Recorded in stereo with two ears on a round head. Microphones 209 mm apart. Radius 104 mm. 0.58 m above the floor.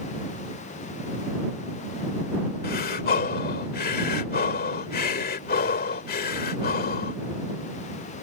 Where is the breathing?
40° left (ahead or behind).